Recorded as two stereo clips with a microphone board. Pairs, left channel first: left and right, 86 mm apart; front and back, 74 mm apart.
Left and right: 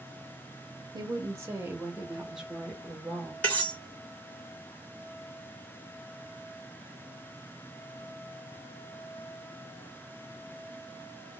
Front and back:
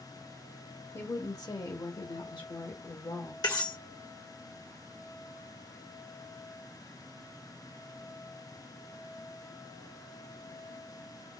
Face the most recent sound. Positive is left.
turn(degrees=15)